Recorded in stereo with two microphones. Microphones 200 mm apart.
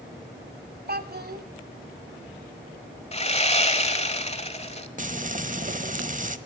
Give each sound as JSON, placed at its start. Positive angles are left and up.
{"t": 0.9, "sound": "a child speaking", "side_deg": -50, "distance_m": 1.1}
{"t": 3.1, "sound": "sawing", "side_deg": 30, "distance_m": 1.3}
{"t": 5.0, "sound": "frying", "side_deg": -40, "distance_m": 0.9}